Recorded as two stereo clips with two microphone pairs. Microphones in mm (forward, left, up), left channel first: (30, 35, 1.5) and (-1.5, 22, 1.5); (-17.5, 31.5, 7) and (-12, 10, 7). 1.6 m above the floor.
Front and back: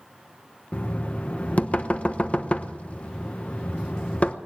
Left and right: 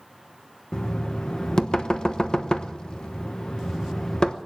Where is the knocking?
65° left, 0.9 m.